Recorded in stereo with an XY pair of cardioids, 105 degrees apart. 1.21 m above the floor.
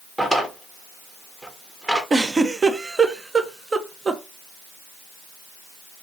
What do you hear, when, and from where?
0.2 s a drawer: 15° right, 1.1 m
2.1 s a giggle: 30° right, 0.7 m